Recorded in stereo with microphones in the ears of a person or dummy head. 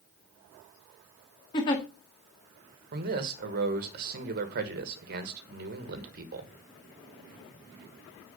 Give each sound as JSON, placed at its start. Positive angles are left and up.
{"t": 1.5, "sound": "a giggle", "side_deg": 15, "distance_m": 0.9}
{"t": 2.9, "sound": "a man speaking", "side_deg": -55, "distance_m": 1.3}